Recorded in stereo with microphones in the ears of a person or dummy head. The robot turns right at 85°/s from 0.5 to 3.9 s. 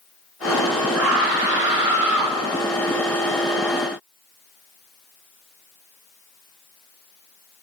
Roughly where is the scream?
Right.